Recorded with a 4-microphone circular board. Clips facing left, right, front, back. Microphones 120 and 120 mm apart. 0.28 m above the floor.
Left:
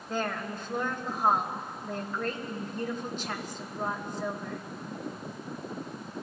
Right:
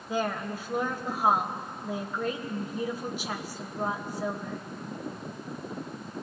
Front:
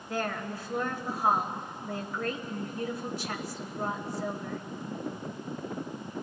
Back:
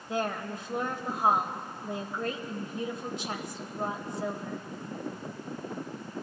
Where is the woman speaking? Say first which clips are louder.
Right 2 dB, back 1 dB; 155° right, 1.2 m.